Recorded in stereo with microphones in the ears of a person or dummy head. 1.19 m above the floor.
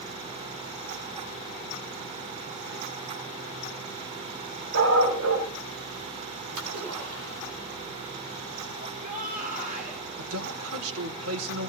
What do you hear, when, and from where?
4.7 s a dog barking: 85° right, 5.5 m
6.6 s a splash: 85° right, 9.5 m
8.8 s a shout: 40° right (ahead or behind), 3 m
10.2 s a man speaking: 80° right, 3 m